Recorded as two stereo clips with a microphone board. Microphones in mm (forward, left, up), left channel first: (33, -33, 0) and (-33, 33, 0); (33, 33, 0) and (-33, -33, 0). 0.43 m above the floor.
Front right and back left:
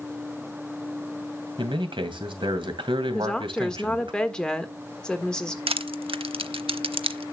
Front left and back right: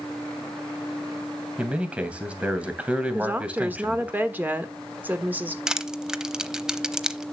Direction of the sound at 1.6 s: 150° left.